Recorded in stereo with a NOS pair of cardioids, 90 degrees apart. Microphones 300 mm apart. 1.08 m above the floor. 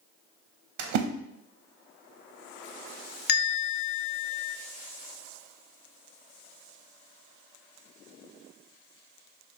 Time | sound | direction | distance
0.8 | a splash | 70° right | 0.6 m
3.3 | a bell | 35° left | 0.5 m